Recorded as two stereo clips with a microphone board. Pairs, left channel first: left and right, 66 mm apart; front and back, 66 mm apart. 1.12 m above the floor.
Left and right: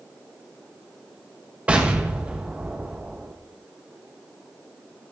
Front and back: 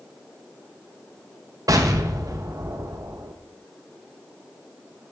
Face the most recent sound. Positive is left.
turn(degrees=-160)